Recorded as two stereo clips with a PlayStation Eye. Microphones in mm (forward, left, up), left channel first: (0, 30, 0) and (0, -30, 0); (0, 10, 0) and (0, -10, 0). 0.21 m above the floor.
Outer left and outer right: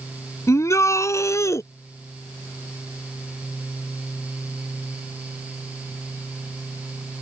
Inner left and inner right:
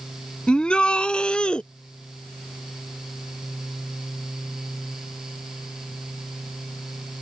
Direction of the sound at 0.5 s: 50° left (ahead or behind).